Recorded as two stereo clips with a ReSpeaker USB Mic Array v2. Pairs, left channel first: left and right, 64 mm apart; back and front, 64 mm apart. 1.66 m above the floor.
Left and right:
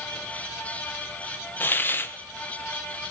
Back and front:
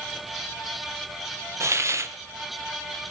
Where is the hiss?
35° left, 1.0 m.